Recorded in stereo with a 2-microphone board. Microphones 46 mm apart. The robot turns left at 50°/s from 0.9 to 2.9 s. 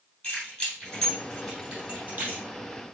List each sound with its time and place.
0.2 s keys jangling: 20° left (ahead or behind), 3 m; by 2.5 s 50° right (ahead or behind), 3 m